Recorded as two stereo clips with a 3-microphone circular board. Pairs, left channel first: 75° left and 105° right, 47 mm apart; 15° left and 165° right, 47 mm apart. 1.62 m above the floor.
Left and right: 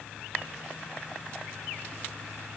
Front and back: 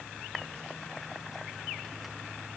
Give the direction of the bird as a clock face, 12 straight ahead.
No bird in this recording.